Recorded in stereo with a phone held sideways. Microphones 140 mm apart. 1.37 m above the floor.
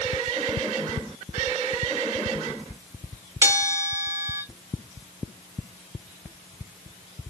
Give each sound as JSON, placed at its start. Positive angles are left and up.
{"t": 3.4, "sound": "a bell", "side_deg": -25, "distance_m": 2.0}